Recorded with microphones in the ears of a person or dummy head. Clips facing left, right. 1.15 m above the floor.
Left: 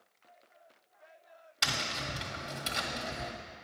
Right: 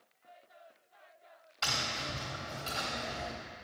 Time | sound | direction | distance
1.6 | tapping | 20° left (ahead or behind) | 1.0 m